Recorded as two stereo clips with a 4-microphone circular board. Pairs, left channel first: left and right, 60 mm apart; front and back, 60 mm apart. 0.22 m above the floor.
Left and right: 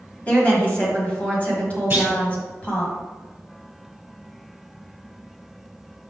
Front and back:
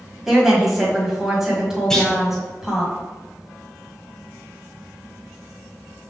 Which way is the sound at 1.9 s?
75° right.